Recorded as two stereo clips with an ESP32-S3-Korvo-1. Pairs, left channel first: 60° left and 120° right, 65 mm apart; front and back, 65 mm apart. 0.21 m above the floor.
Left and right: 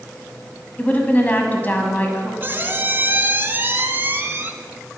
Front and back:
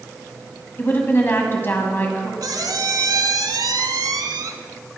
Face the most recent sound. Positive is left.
turn(degrees=-175)